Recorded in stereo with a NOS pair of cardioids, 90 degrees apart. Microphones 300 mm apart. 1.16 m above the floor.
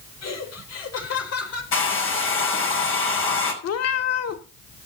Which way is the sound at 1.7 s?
45° left.